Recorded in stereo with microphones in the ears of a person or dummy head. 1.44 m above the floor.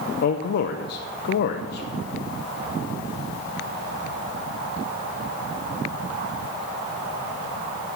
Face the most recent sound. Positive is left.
turn(degrees=55)  # may be behind; listen again after turning